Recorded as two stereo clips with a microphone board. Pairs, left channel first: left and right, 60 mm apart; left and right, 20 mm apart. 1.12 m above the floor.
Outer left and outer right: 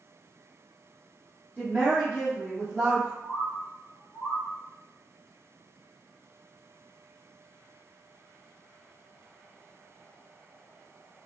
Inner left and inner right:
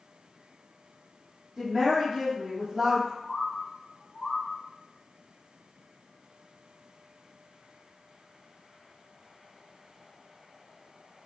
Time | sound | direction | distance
1.6 | a woman speaking | 25° right (ahead or behind) | 0.8 m
3.2 | a bird | 40° left (ahead or behind) | 1.0 m